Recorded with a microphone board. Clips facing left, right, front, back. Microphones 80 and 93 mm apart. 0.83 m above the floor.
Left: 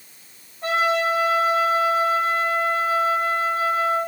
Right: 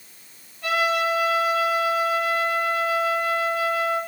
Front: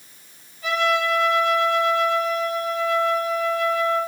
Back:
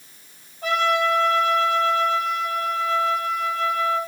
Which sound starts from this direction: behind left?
A trumpet, at 0.6 s.